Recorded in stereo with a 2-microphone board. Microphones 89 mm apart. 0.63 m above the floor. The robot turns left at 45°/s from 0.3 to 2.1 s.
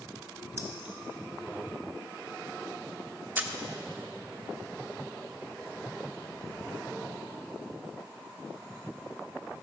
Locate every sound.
0.6 s keys jangling: 25° right (ahead or behind), 2.0 m; by 0.9 s 10° right (ahead or behind), 2.0 m
3.4 s a camera shutter: 25° right (ahead or behind), 1.0 m